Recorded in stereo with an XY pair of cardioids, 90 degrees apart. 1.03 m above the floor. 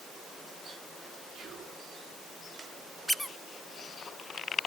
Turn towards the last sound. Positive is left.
turn(degrees=0)